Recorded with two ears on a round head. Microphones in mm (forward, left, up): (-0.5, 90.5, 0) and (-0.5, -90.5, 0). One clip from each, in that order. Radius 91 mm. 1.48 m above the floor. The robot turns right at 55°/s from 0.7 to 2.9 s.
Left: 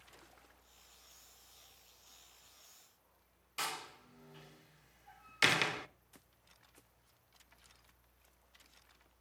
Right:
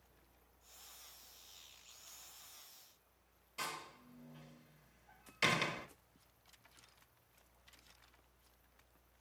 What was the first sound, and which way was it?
A door slam, 45° left (ahead or behind).